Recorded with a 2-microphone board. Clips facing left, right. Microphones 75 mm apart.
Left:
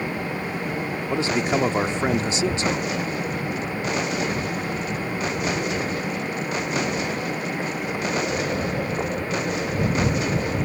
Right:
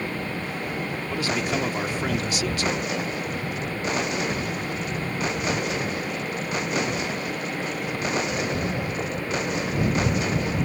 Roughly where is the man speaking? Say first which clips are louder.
Left 4 dB; left.